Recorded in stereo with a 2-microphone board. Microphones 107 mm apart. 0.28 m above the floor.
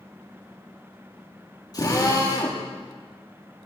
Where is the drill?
40° left (ahead or behind), 6.5 m.